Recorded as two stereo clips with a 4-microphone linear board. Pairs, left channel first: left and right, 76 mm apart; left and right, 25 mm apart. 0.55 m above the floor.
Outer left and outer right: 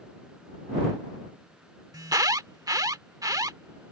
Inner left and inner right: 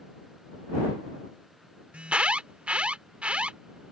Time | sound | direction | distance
1.9 | an alarm | 55° right (ahead or behind) | ?